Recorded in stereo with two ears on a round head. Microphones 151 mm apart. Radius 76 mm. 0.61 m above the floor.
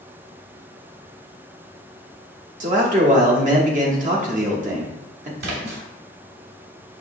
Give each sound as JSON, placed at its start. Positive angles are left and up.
{"t": 2.6, "sound": "a man speaking", "side_deg": -45, "distance_m": 1.0}
{"t": 5.4, "sound": "a splash", "side_deg": -65, "distance_m": 1.2}